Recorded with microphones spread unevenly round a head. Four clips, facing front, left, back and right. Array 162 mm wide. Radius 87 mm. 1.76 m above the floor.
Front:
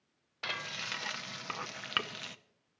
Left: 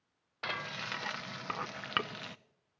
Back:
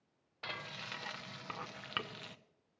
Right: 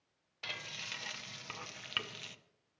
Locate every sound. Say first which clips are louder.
0.4 s frying: left 9 dB, front 5 dB; 55° left, 0.8 m